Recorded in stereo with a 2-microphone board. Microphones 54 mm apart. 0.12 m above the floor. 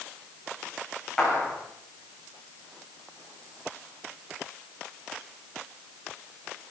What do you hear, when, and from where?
1.2 s a clap: 10° left (ahead or behind), 7.5 m